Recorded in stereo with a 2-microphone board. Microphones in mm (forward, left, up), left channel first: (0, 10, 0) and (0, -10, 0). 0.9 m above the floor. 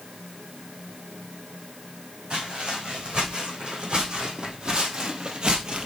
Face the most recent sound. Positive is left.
turn(degrees=-45)  # may be behind; listen again after turning